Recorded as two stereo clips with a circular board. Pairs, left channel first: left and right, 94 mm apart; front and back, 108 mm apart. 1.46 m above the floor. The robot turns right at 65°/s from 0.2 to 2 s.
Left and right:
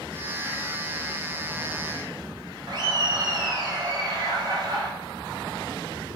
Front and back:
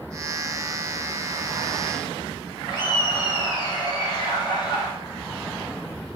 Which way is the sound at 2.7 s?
50° right.